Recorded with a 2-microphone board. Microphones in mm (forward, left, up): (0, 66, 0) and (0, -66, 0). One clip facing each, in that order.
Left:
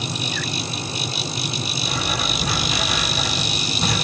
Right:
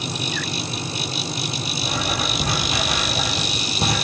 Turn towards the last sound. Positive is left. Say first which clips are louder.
# right 2 dB
turn(degrees=-50)  # may be behind; listen again after turning